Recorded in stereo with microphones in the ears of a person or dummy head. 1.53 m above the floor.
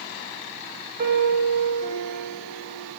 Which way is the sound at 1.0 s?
50° right (ahead or behind).